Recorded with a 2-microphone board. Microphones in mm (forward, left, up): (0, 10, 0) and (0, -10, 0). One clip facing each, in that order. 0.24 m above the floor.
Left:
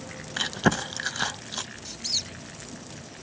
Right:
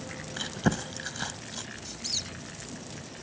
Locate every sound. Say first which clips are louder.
0.4 s chewing: left 5 dB; 30° left (ahead or behind), 0.5 m
1.9 s a squeak: left 4 dB; 10° left (ahead or behind), 0.7 m